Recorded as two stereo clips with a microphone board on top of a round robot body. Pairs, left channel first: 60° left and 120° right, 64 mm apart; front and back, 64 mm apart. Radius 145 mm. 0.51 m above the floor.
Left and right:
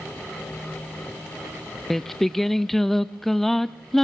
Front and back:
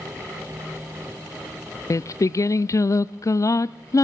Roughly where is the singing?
Ahead right.